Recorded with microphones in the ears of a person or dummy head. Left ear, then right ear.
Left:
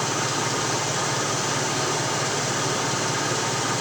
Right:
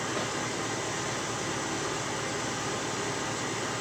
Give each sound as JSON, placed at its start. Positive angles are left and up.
{"t": 0.0, "sound": "an engine running", "side_deg": 85, "distance_m": 7.0}